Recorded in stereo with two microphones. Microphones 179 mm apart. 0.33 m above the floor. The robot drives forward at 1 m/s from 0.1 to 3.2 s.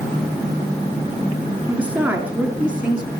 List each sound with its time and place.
1.7 s a woman speaking: 10° right (ahead or behind), 4.5 m; by 3.1 s 5° right (ahead or behind), 5.5 m